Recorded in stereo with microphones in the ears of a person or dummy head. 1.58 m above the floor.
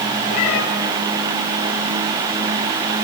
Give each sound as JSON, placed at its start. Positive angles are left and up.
{"t": 0.3, "sound": "a cat meowing", "side_deg": 40, "distance_m": 3.0}